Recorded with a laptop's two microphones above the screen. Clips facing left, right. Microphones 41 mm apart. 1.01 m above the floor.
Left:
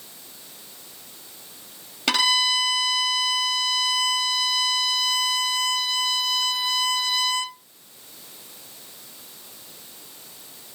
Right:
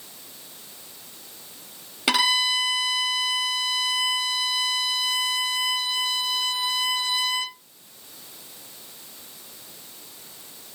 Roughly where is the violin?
Centre.